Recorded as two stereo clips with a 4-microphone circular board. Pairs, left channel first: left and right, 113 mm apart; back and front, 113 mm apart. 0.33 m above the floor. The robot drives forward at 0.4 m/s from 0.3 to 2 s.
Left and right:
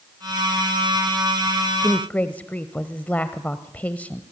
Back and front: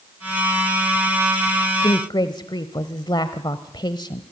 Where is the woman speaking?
160° left, 1.1 m.